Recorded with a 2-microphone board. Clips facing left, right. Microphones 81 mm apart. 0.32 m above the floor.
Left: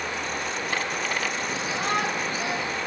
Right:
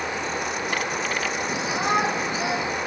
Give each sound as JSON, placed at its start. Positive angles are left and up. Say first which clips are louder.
{"t": 1.5, "sound": "a shout", "louder": "right 5 dB", "side_deg": -20}